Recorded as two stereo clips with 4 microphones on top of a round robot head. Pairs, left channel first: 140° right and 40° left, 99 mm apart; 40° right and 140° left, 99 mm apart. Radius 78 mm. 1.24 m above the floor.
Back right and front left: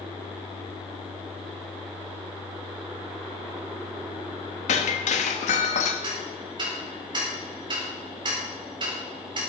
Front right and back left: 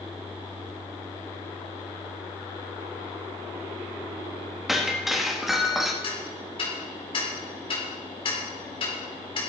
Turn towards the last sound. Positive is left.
turn(degrees=-5)